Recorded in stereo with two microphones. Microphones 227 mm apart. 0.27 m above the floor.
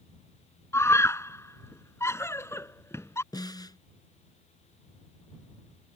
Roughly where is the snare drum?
Centre.